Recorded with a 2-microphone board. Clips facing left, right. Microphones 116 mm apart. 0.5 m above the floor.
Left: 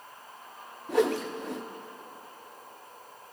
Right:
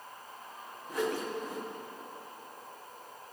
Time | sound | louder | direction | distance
0.9 | a whoosh | left 7 dB | 80° left | 0.5 m